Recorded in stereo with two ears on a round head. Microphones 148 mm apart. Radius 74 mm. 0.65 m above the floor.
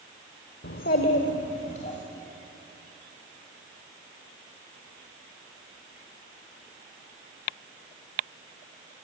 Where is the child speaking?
65° left (ahead or behind), 1.0 m; by 2.0 s 45° left (ahead or behind), 2.5 m.